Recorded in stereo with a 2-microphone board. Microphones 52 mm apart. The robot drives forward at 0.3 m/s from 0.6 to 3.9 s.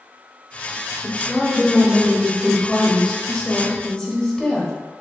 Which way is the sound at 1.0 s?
25° left (ahead or behind).